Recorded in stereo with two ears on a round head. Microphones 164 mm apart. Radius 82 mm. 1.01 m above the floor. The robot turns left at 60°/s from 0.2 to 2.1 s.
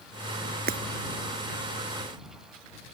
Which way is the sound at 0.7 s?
55° right (ahead or behind).